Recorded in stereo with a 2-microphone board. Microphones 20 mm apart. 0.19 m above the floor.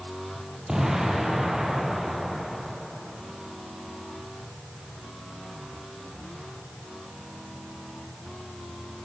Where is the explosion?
30° right (ahead or behind), 5.5 m.